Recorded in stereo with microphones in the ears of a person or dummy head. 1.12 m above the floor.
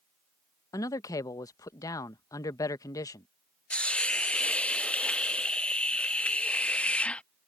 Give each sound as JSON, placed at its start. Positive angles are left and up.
{"t": 0.7, "sound": "a man speaking", "side_deg": 20}
{"t": 3.7, "sound": "a hiss", "side_deg": 5}